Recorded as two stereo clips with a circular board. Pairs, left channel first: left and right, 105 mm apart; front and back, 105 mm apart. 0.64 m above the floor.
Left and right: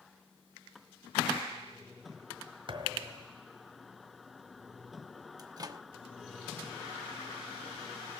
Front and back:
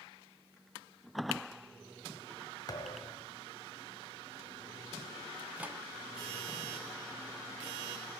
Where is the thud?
50° right, 1.4 m.